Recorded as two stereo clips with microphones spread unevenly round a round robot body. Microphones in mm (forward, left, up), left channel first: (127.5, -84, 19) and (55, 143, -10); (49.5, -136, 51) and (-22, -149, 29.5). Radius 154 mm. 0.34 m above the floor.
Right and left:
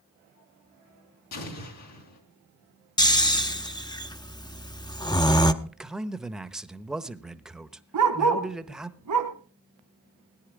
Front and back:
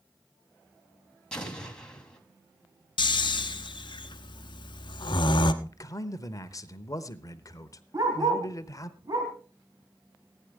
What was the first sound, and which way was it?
An explosion, 75° right.